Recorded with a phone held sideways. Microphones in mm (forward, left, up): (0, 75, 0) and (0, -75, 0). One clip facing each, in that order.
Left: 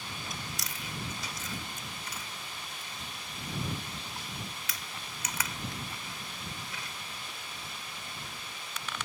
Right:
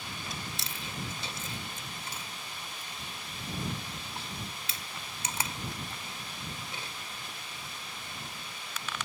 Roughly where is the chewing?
Right.